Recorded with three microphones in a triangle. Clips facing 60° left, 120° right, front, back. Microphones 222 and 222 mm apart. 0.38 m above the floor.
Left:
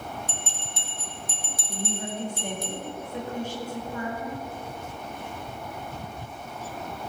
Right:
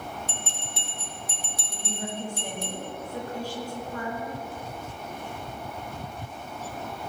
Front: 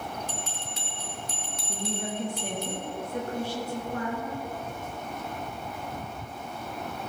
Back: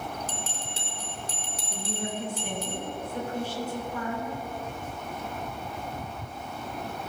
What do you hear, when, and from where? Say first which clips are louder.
0.3 s a bell: even, even; 130° right, 3.5 m
1.7 s a woman speaking: left 3 dB, front 1 dB; 5° right, 4.5 m